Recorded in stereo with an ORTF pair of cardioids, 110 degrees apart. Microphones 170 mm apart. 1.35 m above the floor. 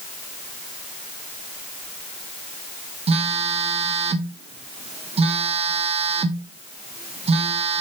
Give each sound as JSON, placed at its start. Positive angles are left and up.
{"t": 3.1, "sound": "a phone buzzing", "azimuth_deg": -35, "distance_m": 1.1}